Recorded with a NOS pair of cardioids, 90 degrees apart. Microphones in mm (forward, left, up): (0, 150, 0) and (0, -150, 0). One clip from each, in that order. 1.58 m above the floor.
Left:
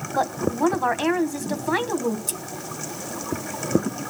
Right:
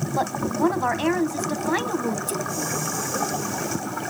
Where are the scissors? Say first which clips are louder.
Right 4 dB; 25° left, 1.6 m.